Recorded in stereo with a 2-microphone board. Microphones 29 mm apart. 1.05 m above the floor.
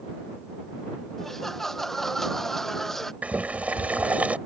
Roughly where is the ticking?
I don't hear ticking.